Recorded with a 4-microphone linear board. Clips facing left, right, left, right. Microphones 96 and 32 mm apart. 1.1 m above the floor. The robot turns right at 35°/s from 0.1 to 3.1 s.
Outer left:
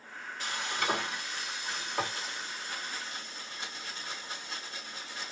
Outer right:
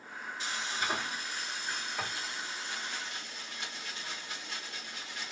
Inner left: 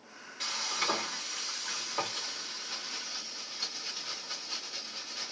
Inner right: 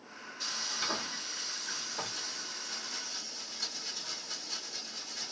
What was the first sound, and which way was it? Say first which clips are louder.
Frying: outer left 3 dB, inner left 4 dB; 50° left.